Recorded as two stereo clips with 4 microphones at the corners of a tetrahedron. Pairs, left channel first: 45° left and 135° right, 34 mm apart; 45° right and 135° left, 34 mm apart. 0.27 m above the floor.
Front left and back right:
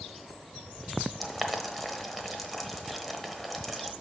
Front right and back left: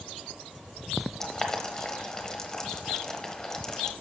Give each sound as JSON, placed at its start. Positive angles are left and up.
{"t": 1.2, "sound": "boiling", "azimuth_deg": -35, "distance_m": 0.9}